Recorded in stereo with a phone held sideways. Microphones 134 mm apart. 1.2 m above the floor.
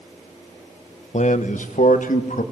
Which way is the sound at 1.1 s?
60° left (ahead or behind).